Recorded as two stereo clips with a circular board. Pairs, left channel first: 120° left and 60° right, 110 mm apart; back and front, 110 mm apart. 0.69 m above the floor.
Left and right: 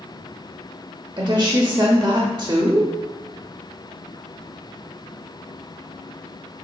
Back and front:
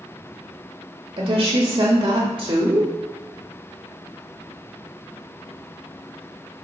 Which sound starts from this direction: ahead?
A woman speaking, at 1.2 s.